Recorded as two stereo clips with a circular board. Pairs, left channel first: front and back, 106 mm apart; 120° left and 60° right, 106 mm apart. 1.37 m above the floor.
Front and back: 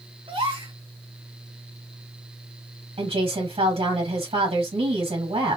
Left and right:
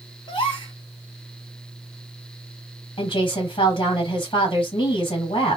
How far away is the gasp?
About 2.0 m.